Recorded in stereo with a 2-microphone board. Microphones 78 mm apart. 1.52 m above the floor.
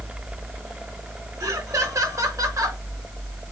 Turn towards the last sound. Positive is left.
turn(degrees=-50)  # may be behind; listen again after turning